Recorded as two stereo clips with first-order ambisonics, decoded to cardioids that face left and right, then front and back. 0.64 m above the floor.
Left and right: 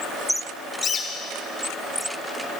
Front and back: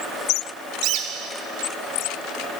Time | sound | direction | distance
0.8 | a bird | 160° left | 1.1 m